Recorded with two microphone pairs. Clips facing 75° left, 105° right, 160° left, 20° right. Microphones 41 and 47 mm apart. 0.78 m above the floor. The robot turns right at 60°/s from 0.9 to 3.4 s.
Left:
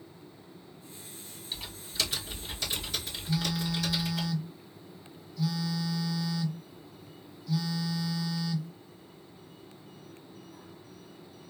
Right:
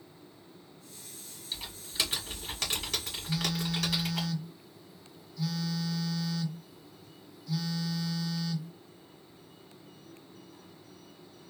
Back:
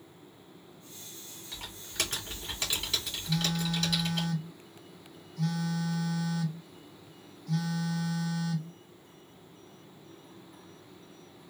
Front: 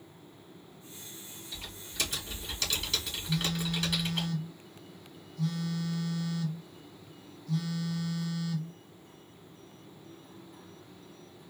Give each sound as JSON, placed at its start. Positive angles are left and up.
{"t": 1.5, "sound": "typing on a keyboard", "azimuth_deg": 155, "distance_m": 2.0}
{"t": 3.3, "sound": "a phone buzzing", "azimuth_deg": 160, "distance_m": 0.7}